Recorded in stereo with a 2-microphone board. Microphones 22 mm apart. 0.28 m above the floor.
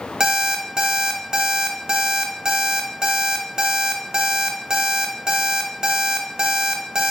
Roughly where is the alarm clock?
Right.